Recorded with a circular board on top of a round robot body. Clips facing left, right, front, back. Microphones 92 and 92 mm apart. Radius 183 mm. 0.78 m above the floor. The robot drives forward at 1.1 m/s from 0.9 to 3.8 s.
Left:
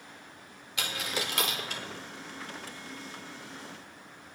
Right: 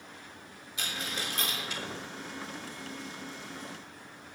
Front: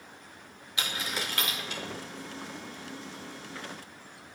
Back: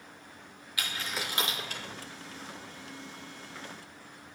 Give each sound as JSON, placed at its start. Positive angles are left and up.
{"t": 0.8, "sound": "a dropped coin", "azimuth_deg": 65, "distance_m": 0.8}